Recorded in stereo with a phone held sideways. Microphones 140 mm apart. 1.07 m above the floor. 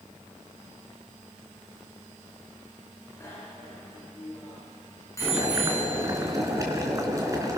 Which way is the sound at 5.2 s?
25° right (ahead or behind).